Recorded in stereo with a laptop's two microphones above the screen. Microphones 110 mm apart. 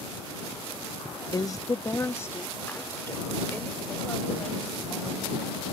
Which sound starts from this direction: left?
A woman speaking, at 1.3 s.